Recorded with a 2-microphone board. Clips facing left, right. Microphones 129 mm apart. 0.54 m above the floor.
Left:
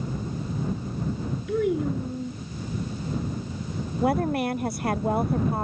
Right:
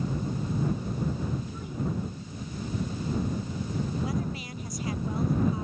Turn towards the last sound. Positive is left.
turn(degrees=65)  # may be behind; listen again after turning